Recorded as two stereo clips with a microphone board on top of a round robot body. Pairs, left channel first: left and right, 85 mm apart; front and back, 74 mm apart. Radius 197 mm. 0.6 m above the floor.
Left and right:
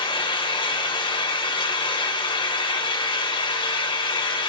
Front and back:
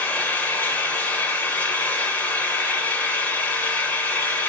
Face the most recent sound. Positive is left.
turn(degrees=70)